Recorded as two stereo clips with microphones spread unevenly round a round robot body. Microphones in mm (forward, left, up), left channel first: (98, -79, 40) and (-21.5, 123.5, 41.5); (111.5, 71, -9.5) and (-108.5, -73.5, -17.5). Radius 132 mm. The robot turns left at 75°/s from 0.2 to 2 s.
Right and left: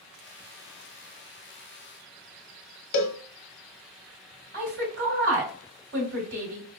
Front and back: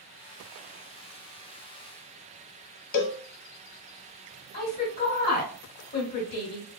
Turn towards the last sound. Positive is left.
turn(degrees=90)